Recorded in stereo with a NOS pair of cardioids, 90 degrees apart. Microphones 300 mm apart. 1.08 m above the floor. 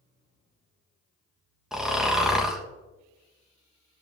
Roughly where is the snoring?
Ahead.